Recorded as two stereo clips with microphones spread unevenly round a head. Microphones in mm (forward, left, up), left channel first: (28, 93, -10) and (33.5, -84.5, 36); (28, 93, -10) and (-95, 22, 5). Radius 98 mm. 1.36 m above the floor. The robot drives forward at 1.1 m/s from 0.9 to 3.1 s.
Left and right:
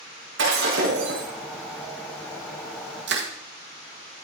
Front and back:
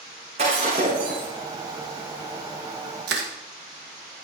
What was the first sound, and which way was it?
Breaking glass, 95° right.